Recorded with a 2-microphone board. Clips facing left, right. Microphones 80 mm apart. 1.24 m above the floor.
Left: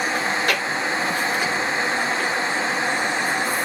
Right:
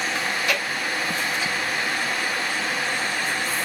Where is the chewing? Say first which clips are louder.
Left 3 dB; 60° left (ahead or behind), 1.3 m.